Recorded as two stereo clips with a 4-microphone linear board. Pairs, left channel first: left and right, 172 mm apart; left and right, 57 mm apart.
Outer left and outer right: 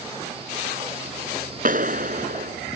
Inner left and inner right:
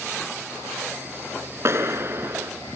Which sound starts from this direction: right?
A clap, at 1.6 s.